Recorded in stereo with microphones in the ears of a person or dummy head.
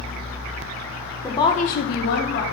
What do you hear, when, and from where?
1.2 s a woman speaking: 15° left (ahead or behind), 0.7 m; by 2.4 s 55° left (ahead or behind), 0.9 m